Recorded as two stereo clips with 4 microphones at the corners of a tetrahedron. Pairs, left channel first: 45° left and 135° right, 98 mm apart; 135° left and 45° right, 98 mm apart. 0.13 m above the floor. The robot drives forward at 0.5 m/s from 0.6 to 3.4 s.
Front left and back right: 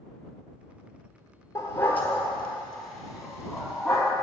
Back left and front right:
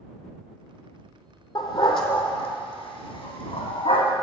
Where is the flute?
I don't hear a flute.